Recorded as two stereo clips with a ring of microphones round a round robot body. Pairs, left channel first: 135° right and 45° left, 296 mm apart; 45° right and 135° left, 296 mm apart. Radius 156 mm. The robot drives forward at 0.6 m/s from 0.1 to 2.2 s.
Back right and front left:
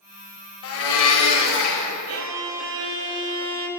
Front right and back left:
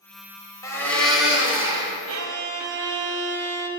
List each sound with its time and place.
0.6 s a blender: 120° right, 1.1 m; by 2.0 s 150° right, 1.6 m
2.1 s a violin: 85° left, 0.7 m; by 3.7 s 90° left, 0.7 m